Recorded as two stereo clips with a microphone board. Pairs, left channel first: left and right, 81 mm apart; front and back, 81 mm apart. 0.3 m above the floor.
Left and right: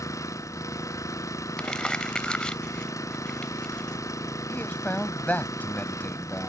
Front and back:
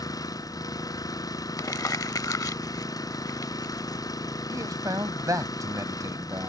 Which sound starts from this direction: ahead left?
An engine running, at 0.0 s.